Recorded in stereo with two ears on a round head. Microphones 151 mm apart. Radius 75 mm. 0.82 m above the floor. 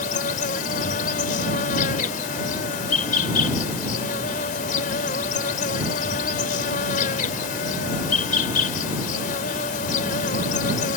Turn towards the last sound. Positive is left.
turn(degrees=55)  # may be behind; listen again after turning